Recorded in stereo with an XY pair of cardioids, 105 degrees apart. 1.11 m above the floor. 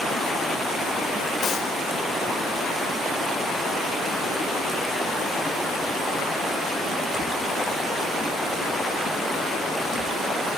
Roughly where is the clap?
Ahead left.